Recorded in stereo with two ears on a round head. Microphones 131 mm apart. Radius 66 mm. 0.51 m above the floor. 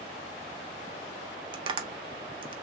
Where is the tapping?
35° right (ahead or behind), 0.5 m.